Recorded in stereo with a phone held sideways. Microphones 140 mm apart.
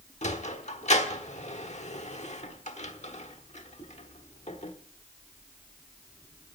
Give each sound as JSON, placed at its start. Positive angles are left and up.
{"t": 0.2, "sound": "a sliding door", "side_deg": 55, "distance_m": 1.1}